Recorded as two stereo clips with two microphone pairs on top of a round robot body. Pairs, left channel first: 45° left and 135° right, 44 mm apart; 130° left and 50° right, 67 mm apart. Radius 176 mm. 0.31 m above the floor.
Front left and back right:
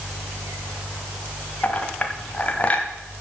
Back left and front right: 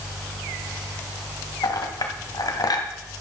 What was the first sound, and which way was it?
A clink, 105° left.